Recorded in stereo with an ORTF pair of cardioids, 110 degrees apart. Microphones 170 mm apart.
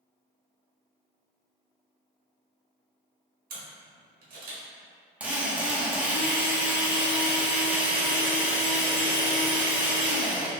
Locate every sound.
3.5 s a camera shutter: 55° right, 1.6 m
5.2 s a drill: 5° right, 1.0 m